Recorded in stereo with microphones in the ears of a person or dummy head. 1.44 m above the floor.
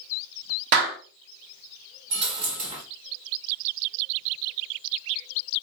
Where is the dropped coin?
25° right (ahead or behind), 1.0 m.